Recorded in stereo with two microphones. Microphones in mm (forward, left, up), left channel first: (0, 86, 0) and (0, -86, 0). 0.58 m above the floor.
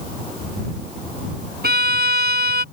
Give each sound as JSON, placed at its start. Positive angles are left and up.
{"t": 1.6, "sound": "a violin", "side_deg": -70}